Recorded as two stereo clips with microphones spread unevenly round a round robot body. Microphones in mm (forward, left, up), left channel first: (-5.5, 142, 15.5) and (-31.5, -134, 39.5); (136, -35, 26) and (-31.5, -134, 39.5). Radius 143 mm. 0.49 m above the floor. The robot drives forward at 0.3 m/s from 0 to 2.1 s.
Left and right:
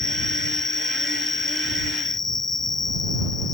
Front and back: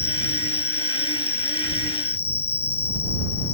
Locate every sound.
0.0 s an insect: 5° right